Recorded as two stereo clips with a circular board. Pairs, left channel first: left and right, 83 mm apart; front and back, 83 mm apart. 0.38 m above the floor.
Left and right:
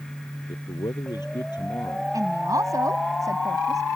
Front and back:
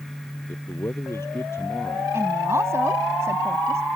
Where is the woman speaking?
130° right.